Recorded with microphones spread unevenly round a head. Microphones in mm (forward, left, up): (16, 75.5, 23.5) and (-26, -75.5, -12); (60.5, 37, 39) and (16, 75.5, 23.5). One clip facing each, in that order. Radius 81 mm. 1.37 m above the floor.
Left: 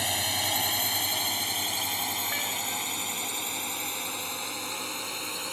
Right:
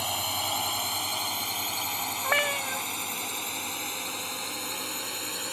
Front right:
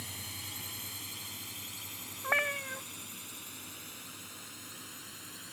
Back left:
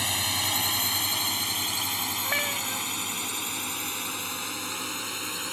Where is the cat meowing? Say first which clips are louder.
Right 6 dB, front right 1 dB; 120° right.